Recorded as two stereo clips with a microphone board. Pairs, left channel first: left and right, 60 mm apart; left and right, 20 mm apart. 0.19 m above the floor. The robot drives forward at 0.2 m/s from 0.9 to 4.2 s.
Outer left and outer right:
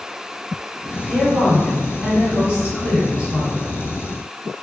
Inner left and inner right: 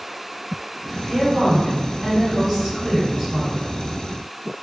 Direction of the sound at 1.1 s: 25° right (ahead or behind).